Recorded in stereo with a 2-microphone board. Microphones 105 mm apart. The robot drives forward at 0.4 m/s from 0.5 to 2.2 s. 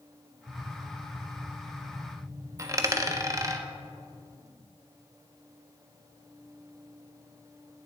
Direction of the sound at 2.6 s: 30° right (ahead or behind).